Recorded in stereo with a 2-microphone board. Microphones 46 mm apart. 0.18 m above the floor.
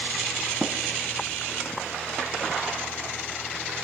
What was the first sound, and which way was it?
Tapping, 5° right (ahead or behind).